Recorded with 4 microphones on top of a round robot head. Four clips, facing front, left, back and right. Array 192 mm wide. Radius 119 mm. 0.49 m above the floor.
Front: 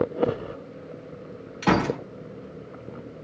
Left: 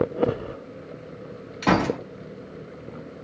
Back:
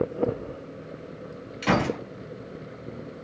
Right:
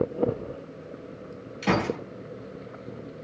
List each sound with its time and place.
1.6 s a gunshot: 55° left, 4 m